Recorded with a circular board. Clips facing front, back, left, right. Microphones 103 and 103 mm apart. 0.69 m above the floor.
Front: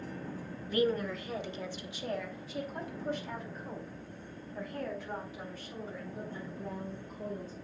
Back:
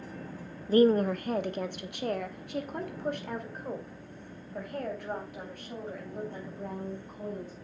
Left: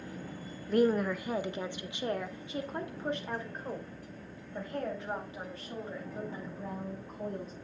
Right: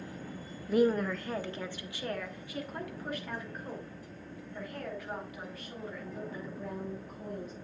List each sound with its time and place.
0.7 s a woman speaking: 170° right, 0.6 m; by 7.5 s 150° left, 5 m